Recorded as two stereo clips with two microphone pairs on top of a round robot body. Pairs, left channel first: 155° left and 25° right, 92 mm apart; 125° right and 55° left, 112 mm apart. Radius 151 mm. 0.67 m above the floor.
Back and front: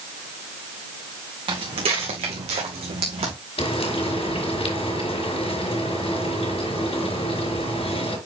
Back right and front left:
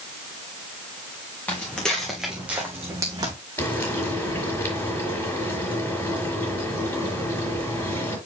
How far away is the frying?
About 4.5 m.